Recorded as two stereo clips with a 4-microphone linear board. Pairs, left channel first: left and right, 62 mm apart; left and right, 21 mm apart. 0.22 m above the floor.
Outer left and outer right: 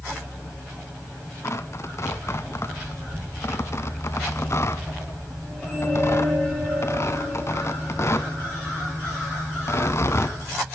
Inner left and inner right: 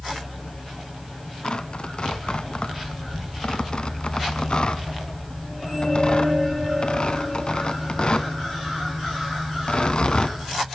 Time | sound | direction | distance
1.4 | tearing paper | 50° left (ahead or behind) | 0.8 m